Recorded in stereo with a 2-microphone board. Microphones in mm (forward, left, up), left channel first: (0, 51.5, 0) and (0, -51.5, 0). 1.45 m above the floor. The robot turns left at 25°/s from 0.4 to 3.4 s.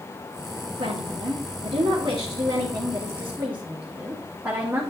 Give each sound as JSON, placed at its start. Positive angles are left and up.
{"t": 0.8, "sound": "a woman speaking", "azimuth_deg": -100, "distance_m": 3.0}